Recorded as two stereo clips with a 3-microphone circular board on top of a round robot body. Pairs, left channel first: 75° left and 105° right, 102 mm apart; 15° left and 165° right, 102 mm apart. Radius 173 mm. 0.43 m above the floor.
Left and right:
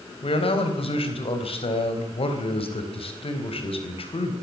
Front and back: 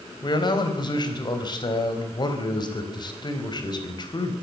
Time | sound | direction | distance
0.2 | a man speaking | 55° left | 4 m